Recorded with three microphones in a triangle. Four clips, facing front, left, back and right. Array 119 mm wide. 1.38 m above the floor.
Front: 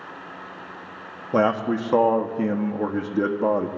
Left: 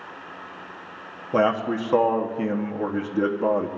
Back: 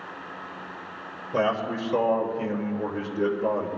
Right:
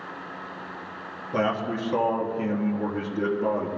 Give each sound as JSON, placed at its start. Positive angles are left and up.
{"t": 1.3, "sound": "a man speaking", "azimuth_deg": 30, "distance_m": 1.1}